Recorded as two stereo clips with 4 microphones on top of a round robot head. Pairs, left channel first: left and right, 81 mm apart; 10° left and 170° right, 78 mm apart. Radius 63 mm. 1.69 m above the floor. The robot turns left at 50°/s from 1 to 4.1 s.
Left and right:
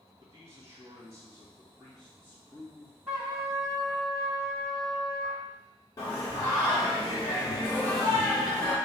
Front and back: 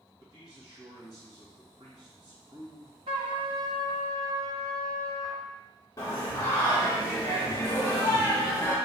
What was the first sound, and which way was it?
A man speaking, 135° right.